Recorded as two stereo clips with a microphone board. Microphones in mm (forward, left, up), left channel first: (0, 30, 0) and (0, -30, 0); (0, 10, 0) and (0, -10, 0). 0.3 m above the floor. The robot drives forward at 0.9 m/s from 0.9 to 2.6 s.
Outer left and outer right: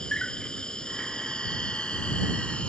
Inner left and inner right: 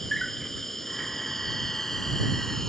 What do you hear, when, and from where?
0.0 s an insect: 15° left (ahead or behind); by 2.7 s 20° left (ahead or behind)